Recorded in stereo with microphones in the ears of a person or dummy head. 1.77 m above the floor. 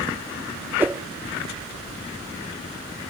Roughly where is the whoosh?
Centre.